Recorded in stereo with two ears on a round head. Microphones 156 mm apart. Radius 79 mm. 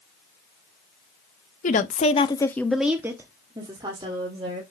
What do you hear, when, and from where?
1.6 s a woman speaking: 45° left (ahead or behind), 1.0 m; by 4.6 s 30° right (ahead or behind), 2.5 m